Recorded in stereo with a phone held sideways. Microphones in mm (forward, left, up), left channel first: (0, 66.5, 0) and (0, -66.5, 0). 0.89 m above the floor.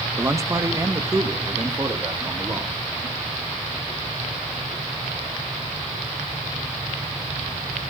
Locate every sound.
0.2 s a man speaking: 20° right (ahead or behind), 1.0 m; by 2.8 s 25° right (ahead or behind), 2.5 m